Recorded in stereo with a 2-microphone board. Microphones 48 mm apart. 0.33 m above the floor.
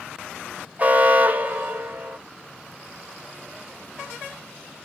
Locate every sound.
0.8 s an alarm: 30° right (ahead or behind), 1.1 m